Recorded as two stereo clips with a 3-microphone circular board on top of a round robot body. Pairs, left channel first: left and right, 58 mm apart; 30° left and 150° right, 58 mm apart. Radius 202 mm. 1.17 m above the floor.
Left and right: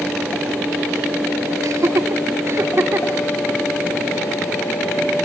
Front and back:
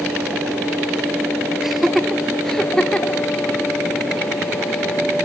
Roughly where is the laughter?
Ahead right.